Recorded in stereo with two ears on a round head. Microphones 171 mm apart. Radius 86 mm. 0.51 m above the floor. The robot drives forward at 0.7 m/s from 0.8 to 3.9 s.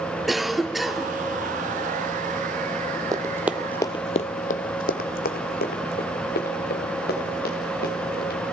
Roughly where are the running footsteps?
Centre.